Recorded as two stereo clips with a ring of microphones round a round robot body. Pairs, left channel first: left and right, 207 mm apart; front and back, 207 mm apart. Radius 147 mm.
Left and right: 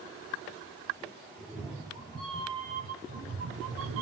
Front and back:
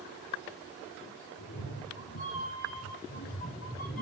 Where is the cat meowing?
5° right, 2.5 m; by 4.0 s 90° right, 1.2 m.